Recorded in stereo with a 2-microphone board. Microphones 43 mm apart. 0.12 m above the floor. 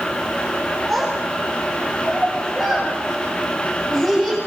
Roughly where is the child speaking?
Centre.